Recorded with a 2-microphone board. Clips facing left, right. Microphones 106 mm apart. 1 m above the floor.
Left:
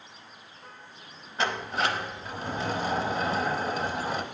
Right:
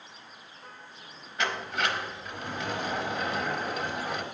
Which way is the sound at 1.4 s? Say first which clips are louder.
Left 2 dB; 30° left (ahead or behind).